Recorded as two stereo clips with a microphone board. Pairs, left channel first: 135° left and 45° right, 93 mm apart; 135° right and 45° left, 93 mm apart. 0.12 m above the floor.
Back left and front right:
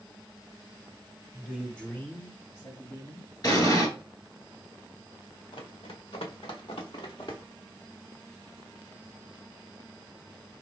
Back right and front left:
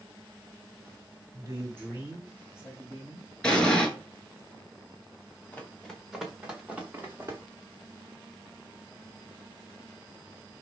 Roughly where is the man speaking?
Ahead left.